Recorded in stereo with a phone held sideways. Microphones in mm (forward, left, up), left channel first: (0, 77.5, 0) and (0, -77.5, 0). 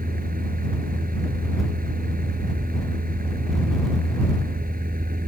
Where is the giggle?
No giggle in this recording.